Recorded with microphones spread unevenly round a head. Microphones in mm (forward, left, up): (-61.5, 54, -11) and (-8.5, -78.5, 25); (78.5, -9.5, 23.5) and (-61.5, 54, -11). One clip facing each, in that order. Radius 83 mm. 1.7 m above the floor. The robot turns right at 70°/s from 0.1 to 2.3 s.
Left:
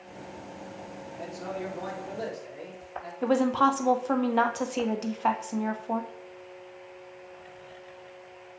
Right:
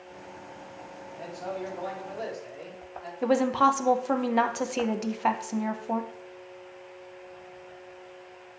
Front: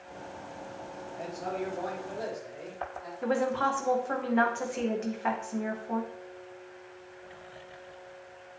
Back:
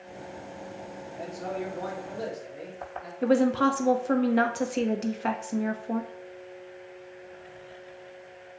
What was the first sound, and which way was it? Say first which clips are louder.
A man speaking: right 1 dB, back 1 dB; 90° left.